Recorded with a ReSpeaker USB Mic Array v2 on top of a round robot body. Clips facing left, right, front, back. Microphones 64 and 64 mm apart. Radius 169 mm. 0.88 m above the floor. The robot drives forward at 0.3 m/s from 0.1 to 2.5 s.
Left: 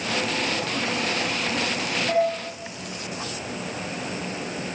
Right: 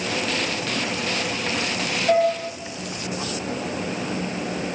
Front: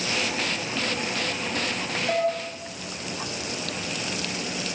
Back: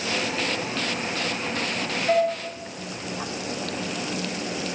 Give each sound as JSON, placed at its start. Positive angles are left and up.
{"t": 2.1, "sound": "dishes clattering", "azimuth_deg": -125, "distance_m": 9.5}